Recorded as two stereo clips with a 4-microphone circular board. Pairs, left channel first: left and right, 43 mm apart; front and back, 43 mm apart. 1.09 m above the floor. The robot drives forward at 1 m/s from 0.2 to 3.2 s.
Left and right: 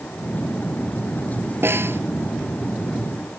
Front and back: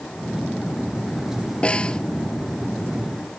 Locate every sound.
1.6 s a snare drum: 60° right; by 2.0 s 65° right